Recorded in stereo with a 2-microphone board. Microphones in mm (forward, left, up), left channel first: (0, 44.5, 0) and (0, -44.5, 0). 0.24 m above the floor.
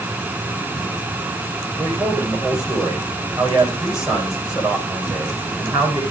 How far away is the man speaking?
About 10 m.